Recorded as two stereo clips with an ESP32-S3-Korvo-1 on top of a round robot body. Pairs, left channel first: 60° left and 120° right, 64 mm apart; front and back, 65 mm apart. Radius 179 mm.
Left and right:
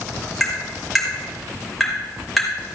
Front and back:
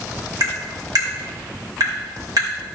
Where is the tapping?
150° left, 3 m.